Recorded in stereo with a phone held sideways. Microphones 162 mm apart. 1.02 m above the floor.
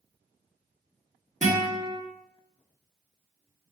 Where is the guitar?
50° right (ahead or behind), 1.5 m.